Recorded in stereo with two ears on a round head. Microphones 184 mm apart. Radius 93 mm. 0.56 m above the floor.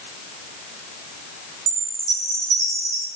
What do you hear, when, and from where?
1.7 s a chime: 65° right (ahead or behind), 6 m